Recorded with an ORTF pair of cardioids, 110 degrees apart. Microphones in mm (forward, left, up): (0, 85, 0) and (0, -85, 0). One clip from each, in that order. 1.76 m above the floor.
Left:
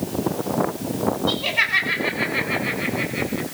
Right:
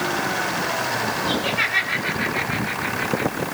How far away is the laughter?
About 9 m.